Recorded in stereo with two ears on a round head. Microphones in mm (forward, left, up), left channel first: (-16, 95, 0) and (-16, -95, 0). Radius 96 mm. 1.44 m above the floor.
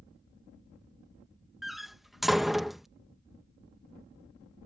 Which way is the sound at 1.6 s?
Centre (ahead or behind).